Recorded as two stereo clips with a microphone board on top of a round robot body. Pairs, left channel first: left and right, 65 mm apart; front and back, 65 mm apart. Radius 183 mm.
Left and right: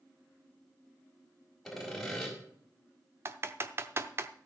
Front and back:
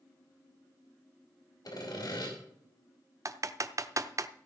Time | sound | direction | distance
1.6 | sawing | straight ahead | 4.5 m
3.2 | typing on a keyboard | 140° right | 0.8 m